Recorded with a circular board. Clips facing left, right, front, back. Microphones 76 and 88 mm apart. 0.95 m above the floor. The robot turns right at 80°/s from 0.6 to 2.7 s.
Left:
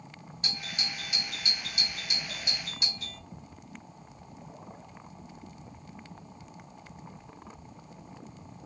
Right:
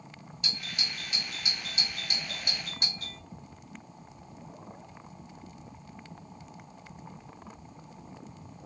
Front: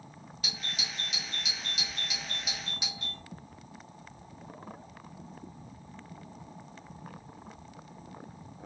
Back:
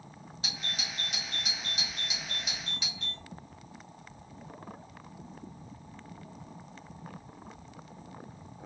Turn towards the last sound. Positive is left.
turn(degrees=-65)